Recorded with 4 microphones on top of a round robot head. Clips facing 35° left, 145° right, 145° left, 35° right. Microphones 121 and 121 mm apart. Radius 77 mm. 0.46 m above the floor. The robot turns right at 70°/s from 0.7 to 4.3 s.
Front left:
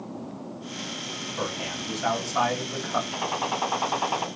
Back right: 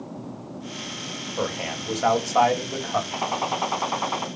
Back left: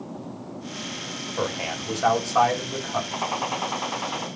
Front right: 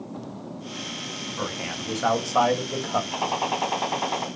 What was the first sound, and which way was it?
A man speaking, 175° right.